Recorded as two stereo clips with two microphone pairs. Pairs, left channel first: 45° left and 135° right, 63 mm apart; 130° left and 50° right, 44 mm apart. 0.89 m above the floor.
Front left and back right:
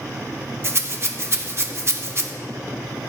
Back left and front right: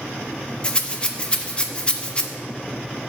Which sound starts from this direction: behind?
A rattle, at 0.6 s.